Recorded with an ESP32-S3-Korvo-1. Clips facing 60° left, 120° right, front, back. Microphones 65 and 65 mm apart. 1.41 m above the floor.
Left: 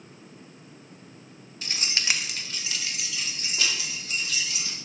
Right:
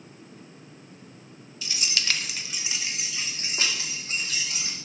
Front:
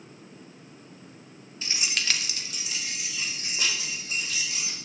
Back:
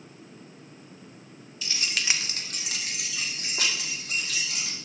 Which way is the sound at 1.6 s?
45° left.